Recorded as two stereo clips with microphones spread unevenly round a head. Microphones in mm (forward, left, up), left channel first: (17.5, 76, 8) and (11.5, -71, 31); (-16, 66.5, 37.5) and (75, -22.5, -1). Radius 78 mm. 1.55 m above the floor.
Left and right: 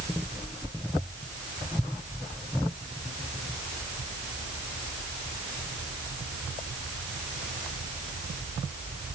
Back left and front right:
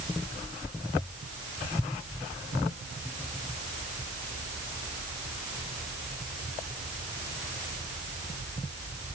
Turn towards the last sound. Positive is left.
No sound to turn to.